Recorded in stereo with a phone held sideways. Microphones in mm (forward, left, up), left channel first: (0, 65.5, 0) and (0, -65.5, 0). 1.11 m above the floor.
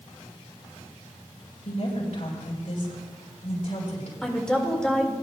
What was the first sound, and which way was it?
A woman speaking, 65° left (ahead or behind).